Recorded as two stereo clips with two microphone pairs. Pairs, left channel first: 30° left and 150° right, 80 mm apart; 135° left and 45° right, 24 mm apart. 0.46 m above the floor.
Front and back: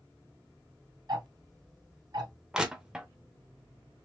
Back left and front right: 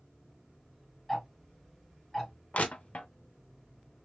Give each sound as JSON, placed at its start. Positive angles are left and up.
{"t": 1.1, "sound": "ticking", "azimuth_deg": -145, "distance_m": 2.0}
{"t": 2.5, "sound": "crushing", "azimuth_deg": 130, "distance_m": 0.6}